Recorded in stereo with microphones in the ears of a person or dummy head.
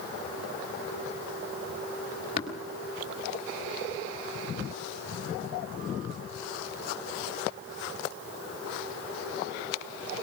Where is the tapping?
35° left (ahead or behind), 4 m.